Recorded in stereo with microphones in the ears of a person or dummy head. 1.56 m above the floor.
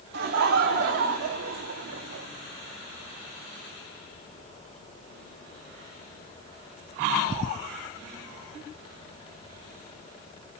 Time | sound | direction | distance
0.1 | laughter | 50° right (ahead or behind) | 0.7 m